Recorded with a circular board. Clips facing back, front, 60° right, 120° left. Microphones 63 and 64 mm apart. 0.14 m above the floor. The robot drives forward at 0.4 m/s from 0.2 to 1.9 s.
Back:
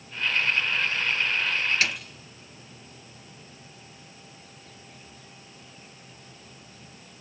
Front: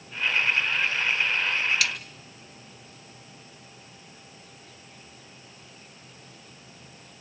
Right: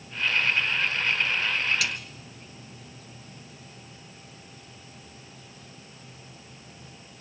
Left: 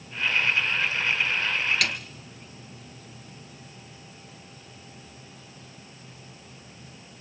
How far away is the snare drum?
About 1.7 m.